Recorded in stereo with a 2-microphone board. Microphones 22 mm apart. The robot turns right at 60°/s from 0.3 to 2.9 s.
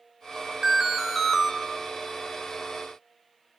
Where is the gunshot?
No gunshot in this recording.